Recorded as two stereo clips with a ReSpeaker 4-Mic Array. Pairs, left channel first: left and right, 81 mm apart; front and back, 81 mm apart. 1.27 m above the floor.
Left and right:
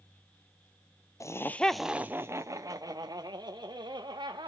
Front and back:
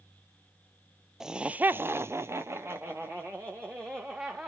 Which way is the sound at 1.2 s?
100° left.